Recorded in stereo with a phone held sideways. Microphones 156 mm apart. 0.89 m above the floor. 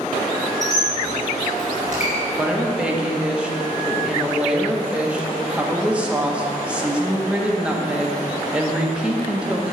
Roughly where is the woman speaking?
Centre.